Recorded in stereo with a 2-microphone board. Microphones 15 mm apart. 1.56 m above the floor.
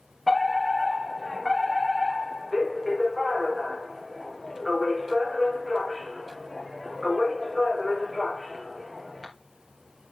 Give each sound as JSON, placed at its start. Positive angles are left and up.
{"t": 0.3, "sound": "a fire alarm", "side_deg": -10, "distance_m": 3.5}